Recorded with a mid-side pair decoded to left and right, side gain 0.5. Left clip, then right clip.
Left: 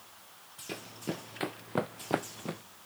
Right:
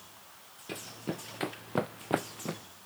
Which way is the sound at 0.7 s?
5° left.